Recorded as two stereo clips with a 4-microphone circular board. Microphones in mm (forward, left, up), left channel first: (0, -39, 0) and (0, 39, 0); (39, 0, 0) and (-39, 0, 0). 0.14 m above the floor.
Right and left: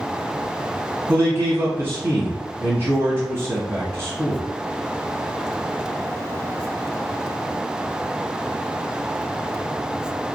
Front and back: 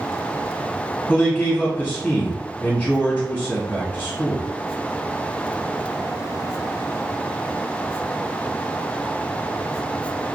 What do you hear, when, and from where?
1.1 s a man speaking: 75° left, 1.5 m